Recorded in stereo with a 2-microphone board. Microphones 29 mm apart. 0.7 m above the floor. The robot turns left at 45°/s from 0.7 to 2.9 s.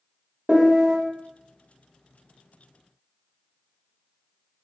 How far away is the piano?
About 0.6 m.